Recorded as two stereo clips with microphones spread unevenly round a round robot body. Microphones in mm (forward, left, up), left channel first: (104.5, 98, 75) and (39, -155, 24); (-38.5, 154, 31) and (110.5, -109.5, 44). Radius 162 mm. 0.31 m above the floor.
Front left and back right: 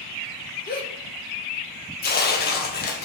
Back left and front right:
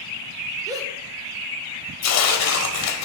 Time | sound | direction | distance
0.7 | a gasp | 20° left | 1.5 m
2.0 | tearing paper | 135° left | 0.9 m